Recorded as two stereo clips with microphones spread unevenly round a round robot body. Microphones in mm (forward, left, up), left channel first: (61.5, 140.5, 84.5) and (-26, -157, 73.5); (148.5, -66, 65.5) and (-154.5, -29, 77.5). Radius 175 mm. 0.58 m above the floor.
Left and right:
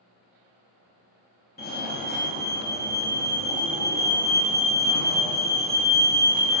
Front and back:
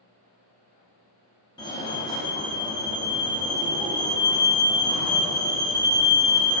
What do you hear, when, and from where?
1.6 s a fire alarm: 50° left, 1.8 m